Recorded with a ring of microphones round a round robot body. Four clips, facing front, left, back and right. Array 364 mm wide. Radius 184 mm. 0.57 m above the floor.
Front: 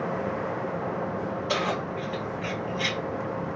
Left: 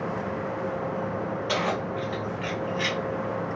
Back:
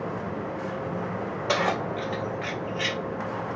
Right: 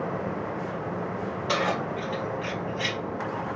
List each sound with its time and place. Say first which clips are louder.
1.5 s keys jangling: right 2 dB, back 4 dB; 165° right, 1.6 m; by 3.0 s 110° left, 1.1 m